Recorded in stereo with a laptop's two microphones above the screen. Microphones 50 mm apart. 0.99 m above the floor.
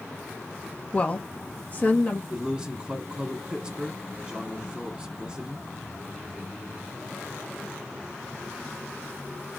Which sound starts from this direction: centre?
A man speaking, at 2.3 s.